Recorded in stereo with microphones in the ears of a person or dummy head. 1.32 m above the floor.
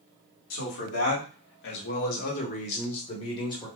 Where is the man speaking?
80° left, 1.3 m; by 3.7 s 25° left (ahead or behind), 1.5 m.